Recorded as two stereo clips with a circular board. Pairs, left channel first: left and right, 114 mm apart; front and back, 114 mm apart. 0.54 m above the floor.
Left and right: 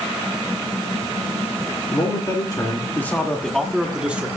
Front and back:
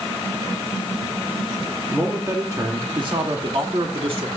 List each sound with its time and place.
1.9 s a man speaking: 115° left, 1.7 m; by 4.3 s 165° right, 1.9 m